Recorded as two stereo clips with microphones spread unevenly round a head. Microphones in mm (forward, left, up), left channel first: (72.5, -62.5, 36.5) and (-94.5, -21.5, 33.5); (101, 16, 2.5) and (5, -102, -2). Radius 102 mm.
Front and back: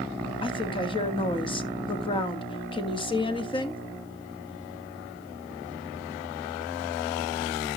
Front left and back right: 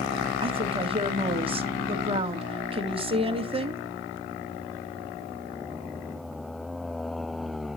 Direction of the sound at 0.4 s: 75° right.